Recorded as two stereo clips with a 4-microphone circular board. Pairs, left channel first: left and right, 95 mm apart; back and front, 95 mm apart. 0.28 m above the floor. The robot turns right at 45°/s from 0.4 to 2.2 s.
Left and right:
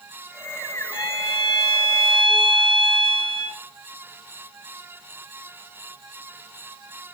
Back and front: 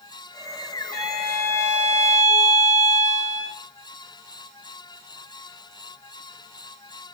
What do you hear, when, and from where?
0.9 s a violin: 75° left, 7 m; by 3.6 s 130° left, 7 m